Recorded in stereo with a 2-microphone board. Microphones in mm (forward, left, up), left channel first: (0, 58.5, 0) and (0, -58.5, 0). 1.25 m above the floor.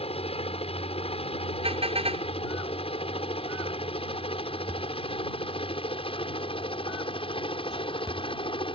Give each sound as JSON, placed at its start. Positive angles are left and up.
{"t": 0.0, "sound": "a helicopter", "side_deg": 55}
{"t": 1.6, "sound": "a car horn", "side_deg": -55}